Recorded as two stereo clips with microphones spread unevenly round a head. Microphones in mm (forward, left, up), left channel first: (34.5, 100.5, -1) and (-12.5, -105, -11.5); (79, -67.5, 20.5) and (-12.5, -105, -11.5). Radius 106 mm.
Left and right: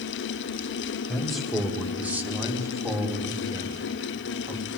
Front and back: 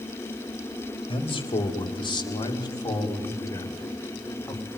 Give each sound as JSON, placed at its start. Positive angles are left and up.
{"t": 1.1, "sound": "a man speaking", "azimuth_deg": -10, "distance_m": 4.0}